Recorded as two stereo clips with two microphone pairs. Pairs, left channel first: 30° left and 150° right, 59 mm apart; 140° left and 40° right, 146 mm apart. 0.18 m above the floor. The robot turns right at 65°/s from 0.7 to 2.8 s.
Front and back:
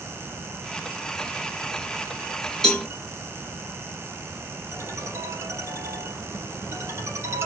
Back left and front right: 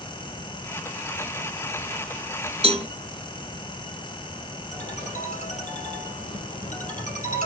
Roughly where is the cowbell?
Ahead right.